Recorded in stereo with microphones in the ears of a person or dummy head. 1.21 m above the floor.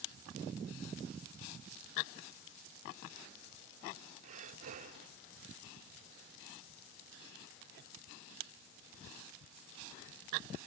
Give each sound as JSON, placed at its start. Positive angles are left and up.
{"t": 4.2, "sound": "breathing", "side_deg": -45}